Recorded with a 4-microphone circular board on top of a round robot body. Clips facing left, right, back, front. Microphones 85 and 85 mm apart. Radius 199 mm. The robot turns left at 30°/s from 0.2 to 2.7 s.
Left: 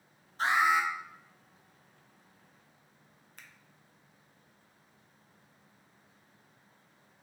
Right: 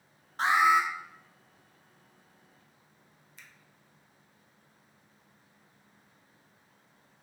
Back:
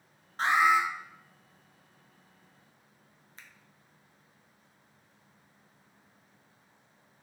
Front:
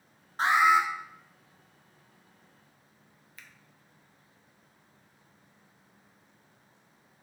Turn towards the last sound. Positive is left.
turn(degrees=120)